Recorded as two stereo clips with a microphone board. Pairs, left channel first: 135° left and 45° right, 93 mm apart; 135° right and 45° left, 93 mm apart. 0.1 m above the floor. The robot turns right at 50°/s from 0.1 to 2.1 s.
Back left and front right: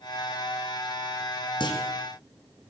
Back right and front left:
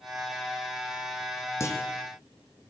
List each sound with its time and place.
1.6 s a clunk: 165° left, 4.5 m; by 1.8 s straight behind, 4.5 m